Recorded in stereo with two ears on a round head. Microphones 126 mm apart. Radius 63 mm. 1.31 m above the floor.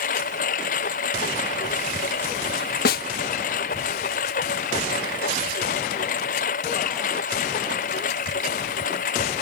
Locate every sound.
0.0 s a lawn mower: 55° left (ahead or behind)
2.9 s a snare drum: 70° left (ahead or behind)